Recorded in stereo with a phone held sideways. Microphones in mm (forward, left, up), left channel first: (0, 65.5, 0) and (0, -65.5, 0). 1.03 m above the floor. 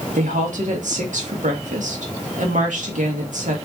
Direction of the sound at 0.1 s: 70° right (ahead or behind).